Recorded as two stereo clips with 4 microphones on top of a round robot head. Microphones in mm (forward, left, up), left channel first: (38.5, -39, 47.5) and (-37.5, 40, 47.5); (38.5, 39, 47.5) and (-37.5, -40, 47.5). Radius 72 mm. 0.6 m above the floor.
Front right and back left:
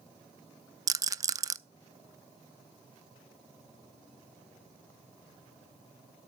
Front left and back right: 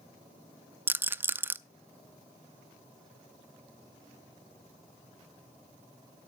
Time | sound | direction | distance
0.9 | a rattle | 165° left | 0.5 m